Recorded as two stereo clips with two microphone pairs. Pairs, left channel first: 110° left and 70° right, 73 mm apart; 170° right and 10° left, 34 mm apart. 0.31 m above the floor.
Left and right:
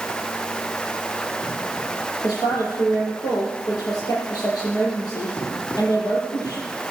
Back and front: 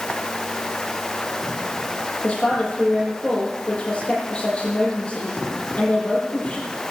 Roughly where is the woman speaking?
Behind left.